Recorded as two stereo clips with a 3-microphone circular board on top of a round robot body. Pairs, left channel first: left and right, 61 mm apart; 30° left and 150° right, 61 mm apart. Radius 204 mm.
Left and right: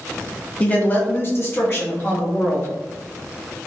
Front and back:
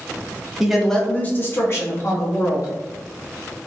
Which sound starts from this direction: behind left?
A woman speaking, at 0.6 s.